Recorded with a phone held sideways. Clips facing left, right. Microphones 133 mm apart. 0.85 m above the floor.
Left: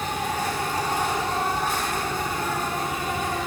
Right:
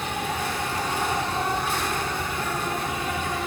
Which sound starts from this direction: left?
An insect, at 0.0 s.